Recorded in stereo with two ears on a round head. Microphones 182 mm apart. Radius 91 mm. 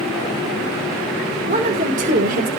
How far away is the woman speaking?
About 5 m.